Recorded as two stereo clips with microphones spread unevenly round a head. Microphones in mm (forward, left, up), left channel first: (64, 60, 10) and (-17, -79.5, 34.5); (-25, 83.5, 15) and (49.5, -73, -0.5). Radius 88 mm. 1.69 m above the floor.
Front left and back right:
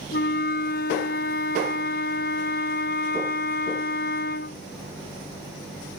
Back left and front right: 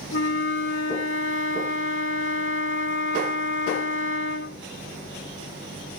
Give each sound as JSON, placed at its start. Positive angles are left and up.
{"t": 0.1, "sound": "a flute", "azimuth_deg": 100}